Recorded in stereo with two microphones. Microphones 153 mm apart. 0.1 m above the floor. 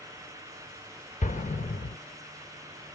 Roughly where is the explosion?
Left.